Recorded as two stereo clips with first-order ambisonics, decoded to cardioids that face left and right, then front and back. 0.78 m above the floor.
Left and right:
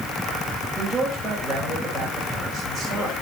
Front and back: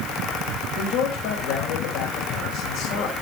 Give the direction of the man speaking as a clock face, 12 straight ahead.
12 o'clock.